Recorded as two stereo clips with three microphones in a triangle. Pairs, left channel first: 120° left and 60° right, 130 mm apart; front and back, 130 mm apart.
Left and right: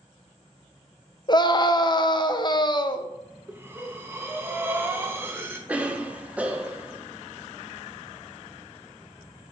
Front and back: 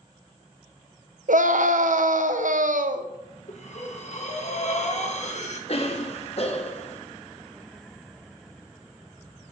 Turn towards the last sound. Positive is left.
turn(degrees=15)